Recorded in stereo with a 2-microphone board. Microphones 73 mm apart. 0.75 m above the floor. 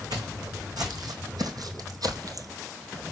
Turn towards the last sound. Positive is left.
turn(degrees=-55)  # may be behind; listen again after turning